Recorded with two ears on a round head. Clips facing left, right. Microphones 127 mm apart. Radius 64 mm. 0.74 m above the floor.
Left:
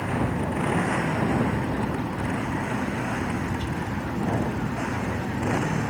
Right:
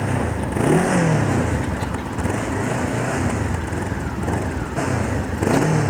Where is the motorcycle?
55° right (ahead or behind); by 5.9 s 65° right (ahead or behind).